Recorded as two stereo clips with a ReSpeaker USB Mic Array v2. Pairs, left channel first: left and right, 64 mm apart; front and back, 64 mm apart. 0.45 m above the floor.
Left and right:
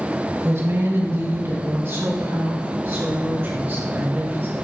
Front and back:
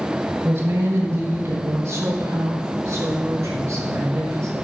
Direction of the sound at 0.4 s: 135° right.